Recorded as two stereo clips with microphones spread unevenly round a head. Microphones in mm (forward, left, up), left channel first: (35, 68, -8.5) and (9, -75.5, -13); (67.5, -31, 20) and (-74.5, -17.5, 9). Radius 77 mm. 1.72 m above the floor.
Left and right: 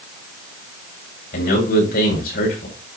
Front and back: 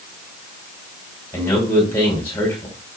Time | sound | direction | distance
1.3 | a man speaking | 70° left | 5 m